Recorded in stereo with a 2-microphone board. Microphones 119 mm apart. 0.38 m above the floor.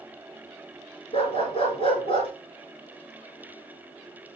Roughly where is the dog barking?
Left.